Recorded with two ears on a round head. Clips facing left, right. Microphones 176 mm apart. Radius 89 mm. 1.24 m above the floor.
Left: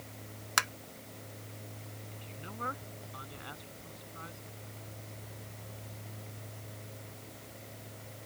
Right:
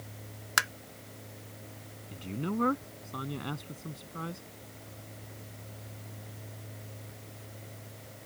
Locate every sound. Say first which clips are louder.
0.6 s tapping: right 1 dB; 5° right (ahead or behind)
2.1 s a man speaking: right 17 dB; 60° right (ahead or behind)